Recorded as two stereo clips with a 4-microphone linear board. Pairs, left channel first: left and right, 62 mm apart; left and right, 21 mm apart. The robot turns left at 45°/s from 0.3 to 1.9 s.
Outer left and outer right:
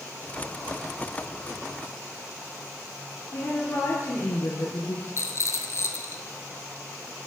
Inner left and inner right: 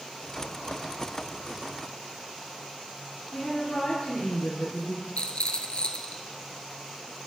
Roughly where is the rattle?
Left.